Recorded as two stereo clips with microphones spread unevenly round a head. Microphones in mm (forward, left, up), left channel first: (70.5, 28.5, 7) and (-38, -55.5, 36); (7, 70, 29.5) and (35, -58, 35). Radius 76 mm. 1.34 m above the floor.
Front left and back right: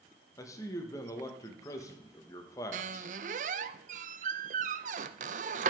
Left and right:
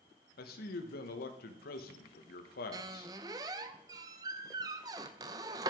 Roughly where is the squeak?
Behind right.